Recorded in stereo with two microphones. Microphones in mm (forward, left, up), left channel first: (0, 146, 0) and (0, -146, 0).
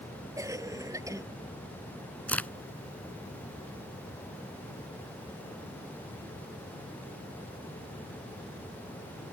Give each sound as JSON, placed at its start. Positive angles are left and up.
{"t": 0.4, "sound": "a cough", "side_deg": -10}
{"t": 2.3, "sound": "a crack", "side_deg": 5}